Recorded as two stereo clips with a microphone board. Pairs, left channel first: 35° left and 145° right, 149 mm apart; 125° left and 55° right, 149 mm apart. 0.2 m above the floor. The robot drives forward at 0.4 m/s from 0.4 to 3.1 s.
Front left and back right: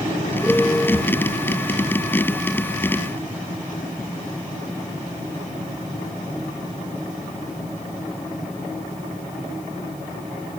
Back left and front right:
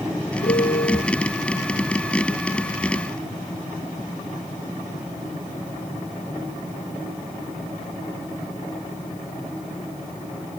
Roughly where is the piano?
Behind left.